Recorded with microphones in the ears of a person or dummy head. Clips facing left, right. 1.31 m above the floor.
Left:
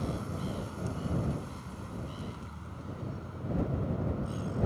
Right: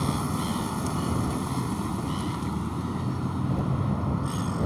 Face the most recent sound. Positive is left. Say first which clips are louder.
# right 8 dB
turn(degrees=-70)  # may be behind; listen again after turning